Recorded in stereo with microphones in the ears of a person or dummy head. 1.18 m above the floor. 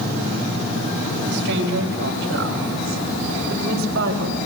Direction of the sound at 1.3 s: 60° right (ahead or behind).